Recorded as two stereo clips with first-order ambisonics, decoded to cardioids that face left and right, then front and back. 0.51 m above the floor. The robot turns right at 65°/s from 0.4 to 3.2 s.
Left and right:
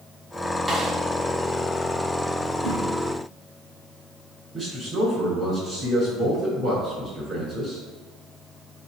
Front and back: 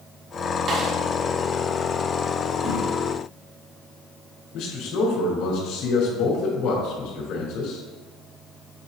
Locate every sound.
0.7 s a snare drum: 165° right, 1.3 m; by 0.9 s 150° right, 1.3 m
2.6 s a whoosh: 120° left, 2.5 m; by 2.9 s 135° left, 2.5 m
4.5 s a man speaking: 25° right, 2.5 m